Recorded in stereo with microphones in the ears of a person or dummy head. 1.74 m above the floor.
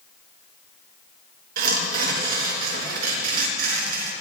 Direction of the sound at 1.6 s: 50° right (ahead or behind).